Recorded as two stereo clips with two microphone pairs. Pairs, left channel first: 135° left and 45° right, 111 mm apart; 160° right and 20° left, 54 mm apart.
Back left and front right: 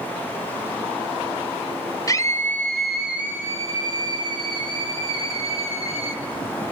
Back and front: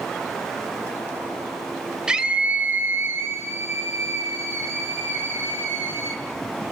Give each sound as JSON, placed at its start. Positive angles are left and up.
{"t": 2.1, "sound": "a scream", "azimuth_deg": 90, "distance_m": 2.0}